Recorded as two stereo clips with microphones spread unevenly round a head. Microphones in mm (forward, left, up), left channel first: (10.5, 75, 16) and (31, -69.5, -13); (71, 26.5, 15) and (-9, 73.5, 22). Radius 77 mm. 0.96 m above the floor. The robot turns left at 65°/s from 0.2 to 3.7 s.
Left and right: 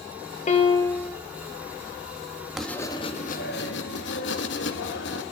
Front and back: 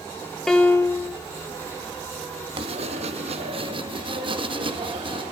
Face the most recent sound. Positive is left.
turn(degrees=120)